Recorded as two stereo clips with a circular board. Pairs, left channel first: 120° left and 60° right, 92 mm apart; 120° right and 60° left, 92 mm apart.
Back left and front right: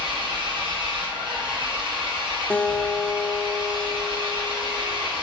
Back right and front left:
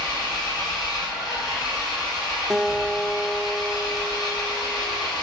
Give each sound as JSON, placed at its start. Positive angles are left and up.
{"t": 0.0, "sound": "an engine running", "azimuth_deg": -80, "distance_m": 2.5}
{"t": 2.5, "sound": "a guitar", "azimuth_deg": 125, "distance_m": 0.5}